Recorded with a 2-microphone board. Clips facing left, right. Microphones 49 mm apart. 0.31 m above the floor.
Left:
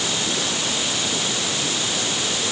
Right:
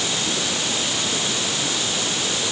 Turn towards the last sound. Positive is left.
No sound to turn to.